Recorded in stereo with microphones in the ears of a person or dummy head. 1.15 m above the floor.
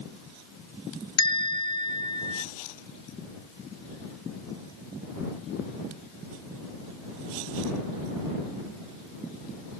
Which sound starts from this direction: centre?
A bell, at 1.2 s.